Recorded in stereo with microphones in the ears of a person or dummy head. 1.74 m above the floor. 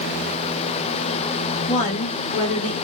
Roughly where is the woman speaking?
Left.